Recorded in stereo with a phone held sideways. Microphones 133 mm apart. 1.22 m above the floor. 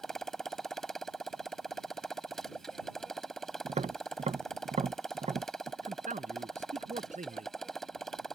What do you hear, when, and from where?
0.0 s a motorcycle: 5° left (ahead or behind)
3.6 s tapping: 55° right (ahead or behind)
5.8 s a man speaking: 70° right (ahead or behind)